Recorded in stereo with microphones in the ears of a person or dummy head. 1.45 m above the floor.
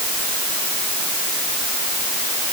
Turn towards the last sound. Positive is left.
No sound to turn to.